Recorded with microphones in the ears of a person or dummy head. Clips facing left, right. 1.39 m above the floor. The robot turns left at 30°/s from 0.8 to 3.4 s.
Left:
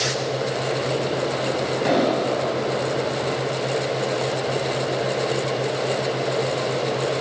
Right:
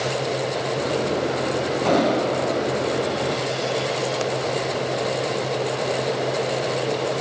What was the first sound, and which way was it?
An explosion, 20° left (ahead or behind).